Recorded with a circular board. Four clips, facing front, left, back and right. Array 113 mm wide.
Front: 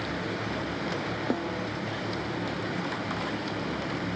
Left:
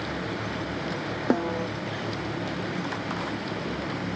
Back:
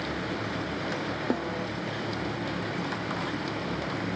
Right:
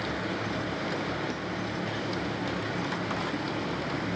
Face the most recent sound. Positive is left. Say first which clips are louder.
# left 8 dB, back 1 dB
turn(degrees=90)